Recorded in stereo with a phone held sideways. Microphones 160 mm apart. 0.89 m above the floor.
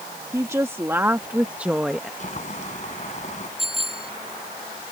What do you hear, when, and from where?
0.3 s a woman speaking: 20° right (ahead or behind); by 2.1 s centre (ahead or behind)
2.2 s boiling: 50° left (ahead or behind)
3.6 s a bicycle bell: 35° right (ahead or behind)